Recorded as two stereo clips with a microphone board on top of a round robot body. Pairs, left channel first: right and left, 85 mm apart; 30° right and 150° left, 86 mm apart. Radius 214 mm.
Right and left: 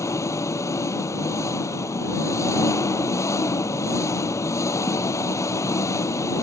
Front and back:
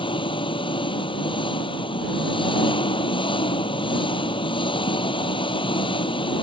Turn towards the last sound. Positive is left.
turn(degrees=-35)